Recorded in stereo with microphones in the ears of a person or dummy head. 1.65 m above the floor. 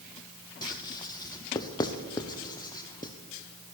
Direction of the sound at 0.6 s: 25° left (ahead or behind).